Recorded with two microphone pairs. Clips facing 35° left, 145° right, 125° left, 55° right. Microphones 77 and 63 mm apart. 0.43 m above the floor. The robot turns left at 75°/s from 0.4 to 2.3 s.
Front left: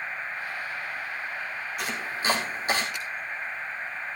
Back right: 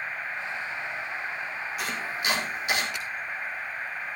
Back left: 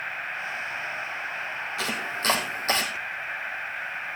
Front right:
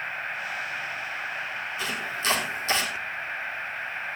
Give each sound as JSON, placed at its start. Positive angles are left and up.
{"t": 1.8, "sound": "chopping", "azimuth_deg": 125, "distance_m": 2.5}